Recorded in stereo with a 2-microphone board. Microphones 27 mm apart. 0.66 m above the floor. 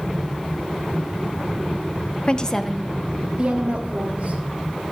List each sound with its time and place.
2.3 s a woman speaking: 35° left (ahead or behind), 0.7 m; by 4.4 s 60° right (ahead or behind), 1.5 m